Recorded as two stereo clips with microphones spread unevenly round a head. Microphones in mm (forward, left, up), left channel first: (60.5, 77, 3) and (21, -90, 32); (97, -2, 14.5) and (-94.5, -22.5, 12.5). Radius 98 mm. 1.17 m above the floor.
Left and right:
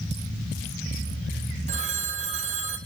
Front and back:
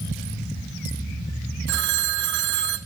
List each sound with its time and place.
1.7 s a phone ringing: 150° right, 0.7 m